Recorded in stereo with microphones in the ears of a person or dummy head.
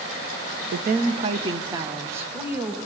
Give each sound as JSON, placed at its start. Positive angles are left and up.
{"t": 0.7, "sound": "a woman speaking", "side_deg": -55, "distance_m": 0.9}